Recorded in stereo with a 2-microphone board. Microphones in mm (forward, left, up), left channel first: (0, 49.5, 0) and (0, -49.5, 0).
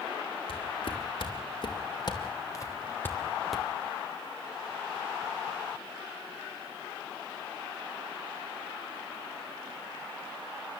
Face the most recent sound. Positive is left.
turn(degrees=-5)  # may be behind; listen again after turning